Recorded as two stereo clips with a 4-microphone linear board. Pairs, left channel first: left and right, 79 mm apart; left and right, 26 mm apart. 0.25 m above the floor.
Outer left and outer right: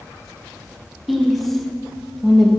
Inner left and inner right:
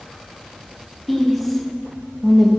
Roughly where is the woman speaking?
Centre.